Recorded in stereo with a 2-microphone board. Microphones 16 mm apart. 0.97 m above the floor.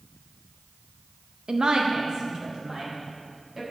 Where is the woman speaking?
60° right (ahead or behind), 0.6 m; by 3.6 s 40° right (ahead or behind), 3 m.